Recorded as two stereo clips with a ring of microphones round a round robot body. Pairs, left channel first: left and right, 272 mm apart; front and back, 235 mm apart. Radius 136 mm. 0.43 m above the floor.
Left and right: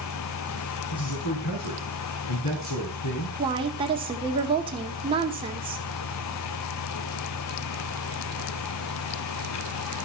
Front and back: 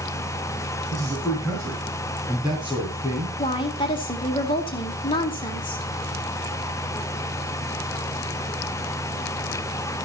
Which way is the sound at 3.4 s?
45° right.